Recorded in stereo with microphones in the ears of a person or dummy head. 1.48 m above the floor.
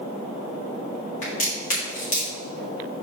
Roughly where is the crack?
Left.